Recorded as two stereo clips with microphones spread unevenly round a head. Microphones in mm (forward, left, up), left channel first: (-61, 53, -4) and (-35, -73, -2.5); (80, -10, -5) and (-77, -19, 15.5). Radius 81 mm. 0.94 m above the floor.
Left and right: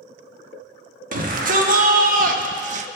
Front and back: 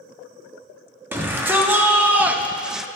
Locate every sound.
1.1 s a shout: 95° right, 1.6 m; by 2.9 s 80° right, 0.5 m